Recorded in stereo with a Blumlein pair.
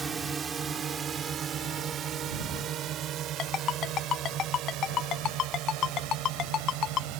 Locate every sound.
0.0 s a drone: 15° right; by 7.2 s 40° right
3.4 s a ringtone: 30° left